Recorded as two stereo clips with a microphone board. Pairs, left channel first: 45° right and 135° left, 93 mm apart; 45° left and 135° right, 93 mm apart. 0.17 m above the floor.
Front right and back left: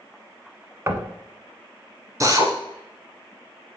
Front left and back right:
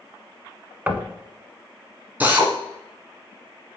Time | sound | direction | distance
0.9 | knocking | 165° left | 0.9 m
2.2 | a drill | 160° left | 1.8 m